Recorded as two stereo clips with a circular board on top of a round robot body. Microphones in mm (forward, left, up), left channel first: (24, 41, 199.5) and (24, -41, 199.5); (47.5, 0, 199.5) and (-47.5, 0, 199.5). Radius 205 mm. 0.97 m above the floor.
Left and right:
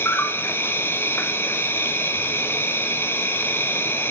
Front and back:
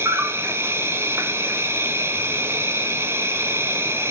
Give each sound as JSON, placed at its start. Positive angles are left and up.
{"t": 0.0, "sound": "an insect", "azimuth_deg": 135, "distance_m": 1.3}